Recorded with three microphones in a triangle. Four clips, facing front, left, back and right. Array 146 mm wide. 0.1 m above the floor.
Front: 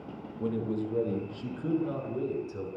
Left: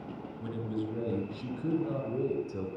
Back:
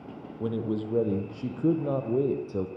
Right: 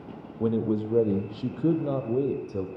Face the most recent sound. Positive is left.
turn(degrees=-150)